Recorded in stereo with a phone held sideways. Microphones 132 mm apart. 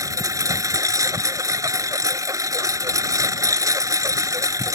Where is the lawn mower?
25° right (ahead or behind).